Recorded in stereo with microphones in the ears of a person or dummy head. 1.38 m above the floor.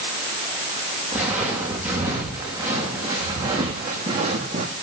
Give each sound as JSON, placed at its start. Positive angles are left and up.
{"t": 1.1, "sound": "footsteps", "side_deg": -5, "distance_m": 7.5}